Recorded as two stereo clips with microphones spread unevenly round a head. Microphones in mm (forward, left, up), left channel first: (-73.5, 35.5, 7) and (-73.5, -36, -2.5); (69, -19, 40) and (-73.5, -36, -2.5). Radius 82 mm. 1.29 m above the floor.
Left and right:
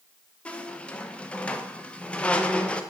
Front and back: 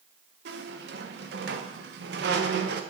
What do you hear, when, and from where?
0.5 s a squeak: 155° left, 0.5 m